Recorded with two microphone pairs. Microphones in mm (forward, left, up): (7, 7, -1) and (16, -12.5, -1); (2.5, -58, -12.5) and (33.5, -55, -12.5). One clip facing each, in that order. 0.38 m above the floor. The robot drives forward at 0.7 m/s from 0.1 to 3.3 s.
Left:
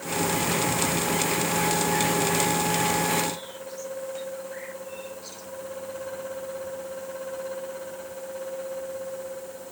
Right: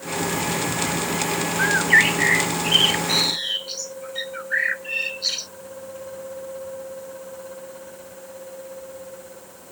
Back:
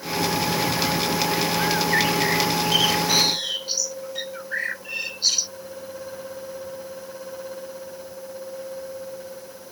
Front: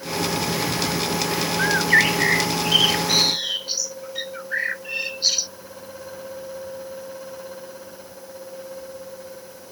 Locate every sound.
1.6 s a bird: 50° right; by 5.5 s 70° right